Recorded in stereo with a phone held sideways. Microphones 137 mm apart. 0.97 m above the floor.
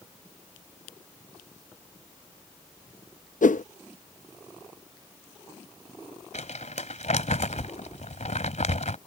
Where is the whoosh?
70° left (ahead or behind).